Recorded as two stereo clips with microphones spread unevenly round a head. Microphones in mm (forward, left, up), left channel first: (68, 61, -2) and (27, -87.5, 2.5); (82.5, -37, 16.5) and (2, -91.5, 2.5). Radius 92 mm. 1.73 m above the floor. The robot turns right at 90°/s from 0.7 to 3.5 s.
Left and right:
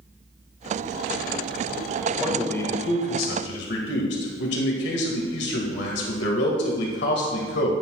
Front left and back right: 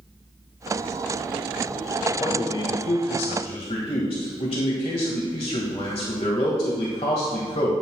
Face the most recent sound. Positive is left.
turn(degrees=85)